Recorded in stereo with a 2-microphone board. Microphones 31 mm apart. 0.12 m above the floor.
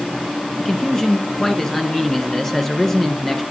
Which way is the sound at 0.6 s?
15° left (ahead or behind).